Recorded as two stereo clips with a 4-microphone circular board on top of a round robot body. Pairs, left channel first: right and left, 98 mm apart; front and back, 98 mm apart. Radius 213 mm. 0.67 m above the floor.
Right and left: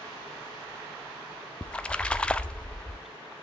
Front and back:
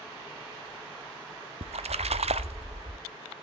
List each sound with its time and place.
1.6 s a splash: 170° right, 0.7 m